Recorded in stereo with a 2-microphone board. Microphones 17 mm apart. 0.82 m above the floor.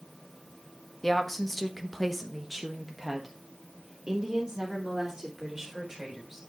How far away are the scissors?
No scissors in this recording.